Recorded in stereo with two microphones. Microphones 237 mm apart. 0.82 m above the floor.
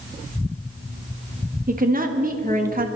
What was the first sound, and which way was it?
A woman speaking, 40° right (ahead or behind).